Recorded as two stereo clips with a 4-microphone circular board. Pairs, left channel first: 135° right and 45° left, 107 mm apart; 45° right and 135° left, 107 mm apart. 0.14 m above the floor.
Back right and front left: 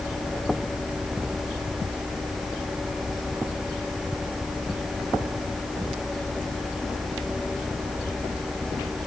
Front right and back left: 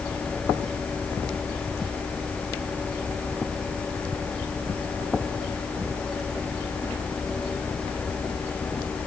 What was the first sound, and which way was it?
Only background noise.